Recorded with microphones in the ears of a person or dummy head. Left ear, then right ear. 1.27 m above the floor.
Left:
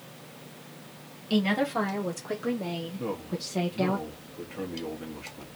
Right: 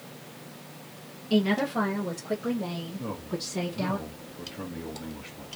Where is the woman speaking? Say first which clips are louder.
Even; 80° left, 2.5 m; by 4.0 s 25° left (ahead or behind), 1.7 m.